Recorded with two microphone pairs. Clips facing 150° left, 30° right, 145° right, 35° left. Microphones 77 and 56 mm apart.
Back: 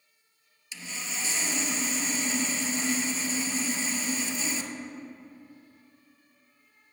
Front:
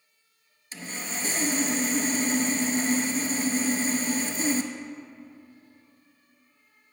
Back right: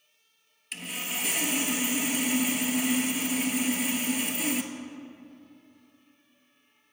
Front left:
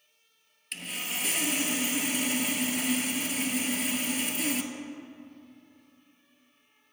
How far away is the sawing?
About 0.5 m.